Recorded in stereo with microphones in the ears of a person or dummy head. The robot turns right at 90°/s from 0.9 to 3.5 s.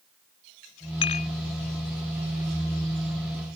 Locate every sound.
1.0 s dishes clattering: 30° left (ahead or behind); by 1.3 s 55° left (ahead or behind)